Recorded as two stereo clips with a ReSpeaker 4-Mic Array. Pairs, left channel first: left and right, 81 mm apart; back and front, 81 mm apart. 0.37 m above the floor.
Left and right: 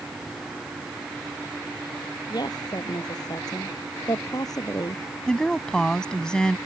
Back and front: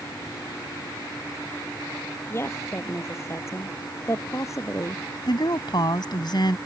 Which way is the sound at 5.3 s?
170° left.